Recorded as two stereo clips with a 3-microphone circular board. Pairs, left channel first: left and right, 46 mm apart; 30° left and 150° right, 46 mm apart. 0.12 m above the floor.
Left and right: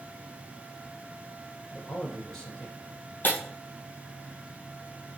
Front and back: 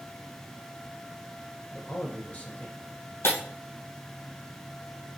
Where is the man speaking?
25° left, 1.5 m.